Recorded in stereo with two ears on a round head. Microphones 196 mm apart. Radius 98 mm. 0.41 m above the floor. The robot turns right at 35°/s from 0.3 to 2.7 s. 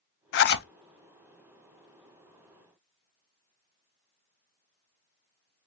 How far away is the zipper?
About 0.6 m.